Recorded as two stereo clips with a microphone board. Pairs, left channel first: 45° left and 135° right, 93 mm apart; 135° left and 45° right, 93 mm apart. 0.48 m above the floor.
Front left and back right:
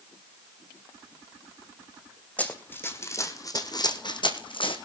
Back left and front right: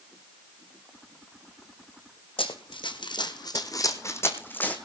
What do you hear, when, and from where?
2.4 s running footsteps: 120° left, 1.8 m; by 4.8 s 60° left, 1.8 m